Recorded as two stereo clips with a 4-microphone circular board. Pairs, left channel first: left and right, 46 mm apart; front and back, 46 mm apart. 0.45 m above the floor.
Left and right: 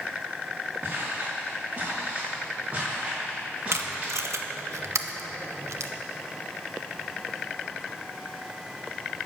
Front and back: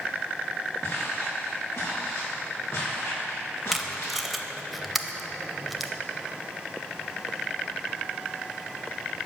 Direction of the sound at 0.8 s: 35° right.